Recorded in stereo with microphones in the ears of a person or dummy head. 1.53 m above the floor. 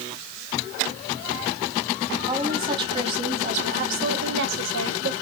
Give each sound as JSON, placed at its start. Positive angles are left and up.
{"t": 2.3, "sound": "a woman speaking", "side_deg": -20, "distance_m": 2.5}